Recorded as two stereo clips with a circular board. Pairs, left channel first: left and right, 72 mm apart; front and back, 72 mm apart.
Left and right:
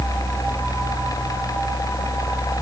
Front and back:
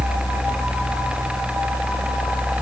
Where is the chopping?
I don't hear chopping.